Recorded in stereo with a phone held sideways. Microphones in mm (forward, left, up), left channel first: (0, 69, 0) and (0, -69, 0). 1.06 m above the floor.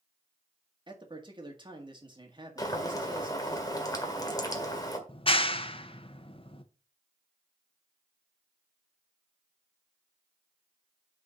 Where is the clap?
40° left (ahead or behind), 0.8 m.